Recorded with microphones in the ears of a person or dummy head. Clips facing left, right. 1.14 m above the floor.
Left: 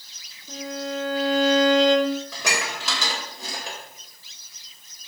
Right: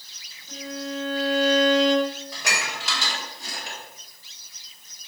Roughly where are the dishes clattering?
Left.